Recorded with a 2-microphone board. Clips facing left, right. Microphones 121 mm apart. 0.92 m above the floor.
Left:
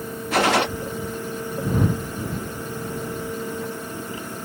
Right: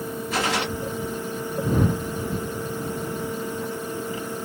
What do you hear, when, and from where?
0.3 s a gunshot: 75° left (ahead or behind)